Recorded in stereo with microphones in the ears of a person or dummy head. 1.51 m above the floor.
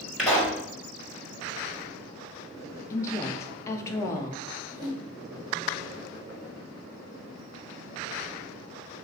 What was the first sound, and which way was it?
A pop, centre (ahead or behind).